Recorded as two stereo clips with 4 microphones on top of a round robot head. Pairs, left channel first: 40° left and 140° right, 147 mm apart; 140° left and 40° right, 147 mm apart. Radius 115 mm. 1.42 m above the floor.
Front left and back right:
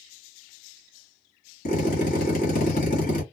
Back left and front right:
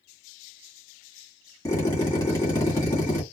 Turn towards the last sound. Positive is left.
turn(degrees=70)